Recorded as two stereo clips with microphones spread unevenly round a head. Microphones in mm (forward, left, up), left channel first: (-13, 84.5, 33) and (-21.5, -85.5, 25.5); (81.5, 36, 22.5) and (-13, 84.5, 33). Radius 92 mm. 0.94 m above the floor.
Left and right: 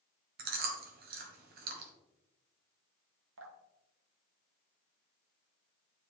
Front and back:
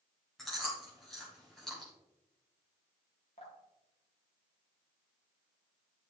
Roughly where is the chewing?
Behind right.